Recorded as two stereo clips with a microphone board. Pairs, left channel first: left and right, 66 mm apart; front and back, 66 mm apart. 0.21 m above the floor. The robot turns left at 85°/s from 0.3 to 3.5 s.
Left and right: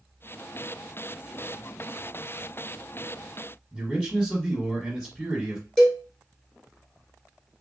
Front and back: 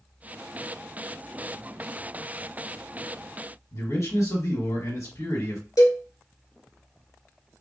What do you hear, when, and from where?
3.7 s a man speaking: 5° left, 2.5 m
5.8 s a cowbell: 10° left, 1.9 m